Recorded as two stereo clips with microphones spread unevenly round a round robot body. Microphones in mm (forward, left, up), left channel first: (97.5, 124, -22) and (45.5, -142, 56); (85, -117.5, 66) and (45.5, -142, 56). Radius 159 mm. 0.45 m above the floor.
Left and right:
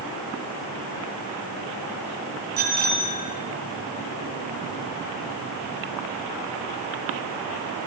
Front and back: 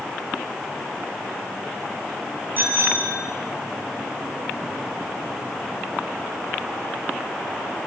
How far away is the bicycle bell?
About 6.5 m.